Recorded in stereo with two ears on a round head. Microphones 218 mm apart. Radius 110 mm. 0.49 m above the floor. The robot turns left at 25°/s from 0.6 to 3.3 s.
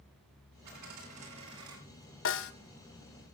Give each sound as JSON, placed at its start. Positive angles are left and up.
{"t": 0.7, "sound": "a dropped coin", "side_deg": -85, "distance_m": 7.5}
{"t": 2.2, "sound": "a snare drum", "side_deg": 45, "distance_m": 1.4}